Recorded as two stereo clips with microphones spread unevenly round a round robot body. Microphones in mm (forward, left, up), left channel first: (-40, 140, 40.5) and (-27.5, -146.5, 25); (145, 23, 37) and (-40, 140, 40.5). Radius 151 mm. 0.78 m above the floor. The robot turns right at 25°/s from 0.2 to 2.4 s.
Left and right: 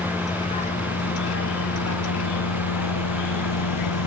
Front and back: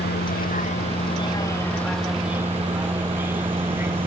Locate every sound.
0.0 s a vehicle: 10° left; by 4.1 s 65° left